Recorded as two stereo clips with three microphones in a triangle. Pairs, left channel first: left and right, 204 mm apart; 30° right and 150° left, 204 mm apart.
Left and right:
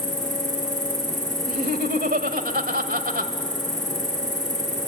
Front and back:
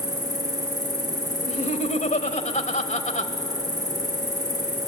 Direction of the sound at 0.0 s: 140° right.